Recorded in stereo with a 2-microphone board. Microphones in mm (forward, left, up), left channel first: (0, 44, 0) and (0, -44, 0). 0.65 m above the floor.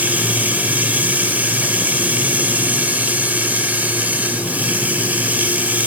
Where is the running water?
15° right (ahead or behind), 2.5 m.